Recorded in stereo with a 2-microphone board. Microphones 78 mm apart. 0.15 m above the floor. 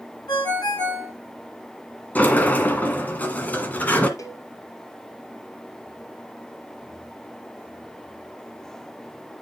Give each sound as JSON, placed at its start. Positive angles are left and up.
{"t": 0.3, "sound": "a ringtone", "side_deg": 60, "distance_m": 5.5}
{"t": 2.1, "sound": "a sliding door", "side_deg": 20, "distance_m": 1.4}
{"t": 4.2, "sound": "a cowbell", "side_deg": 40, "distance_m": 1.8}